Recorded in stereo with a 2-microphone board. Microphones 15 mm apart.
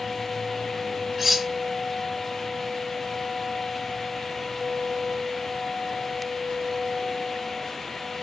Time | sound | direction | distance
1.2 | cutlery clinking | 10° right (ahead or behind) | 1.0 m